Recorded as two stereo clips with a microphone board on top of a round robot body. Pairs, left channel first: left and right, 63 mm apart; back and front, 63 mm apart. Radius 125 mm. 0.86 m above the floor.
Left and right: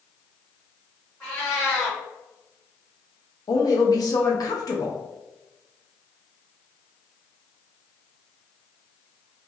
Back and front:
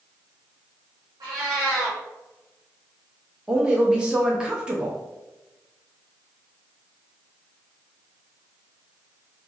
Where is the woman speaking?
75° left, 1.1 m.